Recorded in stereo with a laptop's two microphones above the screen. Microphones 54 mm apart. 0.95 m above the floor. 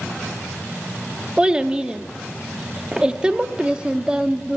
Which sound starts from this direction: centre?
A child speaking, at 1.4 s.